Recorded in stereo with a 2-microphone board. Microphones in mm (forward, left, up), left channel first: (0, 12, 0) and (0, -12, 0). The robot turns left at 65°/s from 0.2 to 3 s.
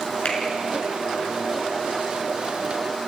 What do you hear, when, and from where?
0.2 s a finger snap: 70° left (ahead or behind), 5 m; by 0.4 s 60° left (ahead or behind), 5 m